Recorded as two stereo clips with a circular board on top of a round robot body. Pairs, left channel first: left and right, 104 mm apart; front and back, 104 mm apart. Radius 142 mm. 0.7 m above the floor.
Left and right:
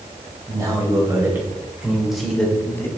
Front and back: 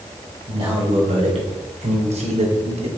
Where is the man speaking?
150° right, 4.5 m; by 2.9 s 160° left, 2.5 m.